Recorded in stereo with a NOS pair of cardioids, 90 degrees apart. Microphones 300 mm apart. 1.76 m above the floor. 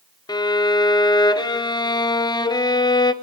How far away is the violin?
About 0.9 m.